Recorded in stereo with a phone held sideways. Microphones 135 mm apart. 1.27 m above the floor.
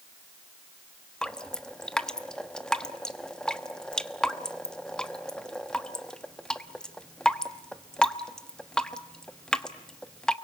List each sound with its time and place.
1.2 s dripping: 5° left (ahead or behind), 1.1 m